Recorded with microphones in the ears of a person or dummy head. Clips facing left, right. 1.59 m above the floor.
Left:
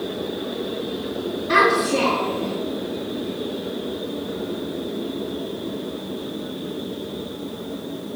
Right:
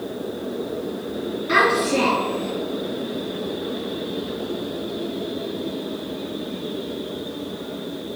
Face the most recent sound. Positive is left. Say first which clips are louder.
# left 1 dB
turn(degrees=-35)  # may be behind; listen again after turning